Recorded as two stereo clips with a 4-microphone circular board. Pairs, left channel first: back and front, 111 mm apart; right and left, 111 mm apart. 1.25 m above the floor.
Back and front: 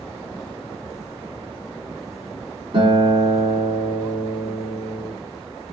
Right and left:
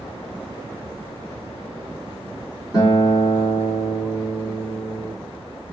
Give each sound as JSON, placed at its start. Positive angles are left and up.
{"t": 2.7, "sound": "a guitar", "azimuth_deg": -35, "distance_m": 2.5}